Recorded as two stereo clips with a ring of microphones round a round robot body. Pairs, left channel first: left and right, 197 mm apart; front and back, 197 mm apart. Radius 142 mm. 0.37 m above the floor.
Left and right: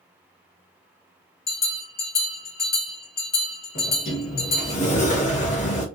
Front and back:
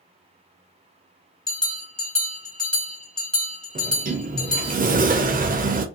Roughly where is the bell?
Left.